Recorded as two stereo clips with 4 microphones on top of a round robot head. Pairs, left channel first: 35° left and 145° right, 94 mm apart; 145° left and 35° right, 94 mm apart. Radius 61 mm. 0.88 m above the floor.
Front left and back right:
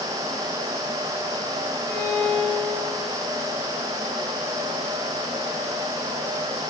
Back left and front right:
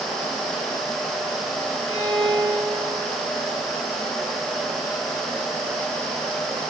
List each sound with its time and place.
1.9 s a violin: 90° left, 6.5 m